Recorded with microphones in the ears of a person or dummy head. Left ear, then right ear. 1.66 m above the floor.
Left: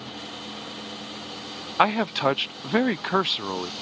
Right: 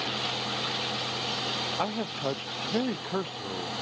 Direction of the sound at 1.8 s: 60° left (ahead or behind).